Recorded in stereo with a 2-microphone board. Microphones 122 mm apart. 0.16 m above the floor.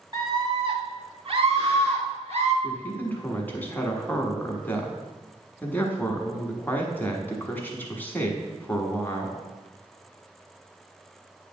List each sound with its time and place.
0.1 s a scream: 30° right (ahead or behind), 1.4 m; by 2.5 s 60° right (ahead or behind), 2.5 m
2.6 s a man speaking: 15° left (ahead or behind), 1.3 m